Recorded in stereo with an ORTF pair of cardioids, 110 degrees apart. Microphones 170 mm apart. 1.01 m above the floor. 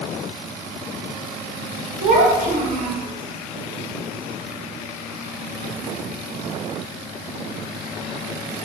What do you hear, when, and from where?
2.0 s a child speaking: 50° right, 0.7 m